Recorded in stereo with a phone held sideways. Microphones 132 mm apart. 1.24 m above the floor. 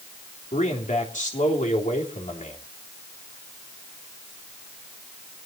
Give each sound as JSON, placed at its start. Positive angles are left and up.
{"t": 0.5, "sound": "a man speaking", "side_deg": 75, "distance_m": 3.5}